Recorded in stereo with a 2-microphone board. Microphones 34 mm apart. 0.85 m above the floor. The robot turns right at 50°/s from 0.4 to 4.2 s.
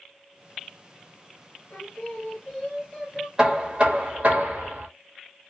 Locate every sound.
1.7 s singing: 110° left, 1.2 m; by 3.3 s 170° right, 1.2 m
3.4 s knocking: 165° right, 1.1 m; by 4.9 s 125° right, 1.1 m